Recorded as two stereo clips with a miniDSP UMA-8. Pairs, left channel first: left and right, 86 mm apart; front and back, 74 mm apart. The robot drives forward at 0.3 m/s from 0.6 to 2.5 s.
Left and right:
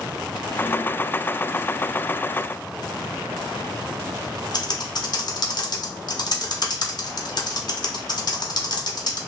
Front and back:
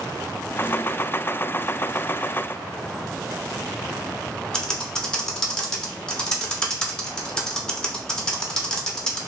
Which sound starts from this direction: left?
Typing on a keyboard, at 4.5 s.